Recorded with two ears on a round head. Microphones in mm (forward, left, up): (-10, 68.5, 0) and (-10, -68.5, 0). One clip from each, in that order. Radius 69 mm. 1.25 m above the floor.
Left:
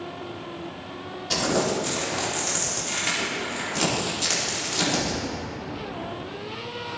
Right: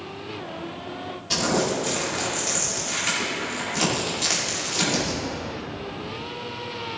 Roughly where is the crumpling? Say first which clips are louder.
Right 1 dB; centre.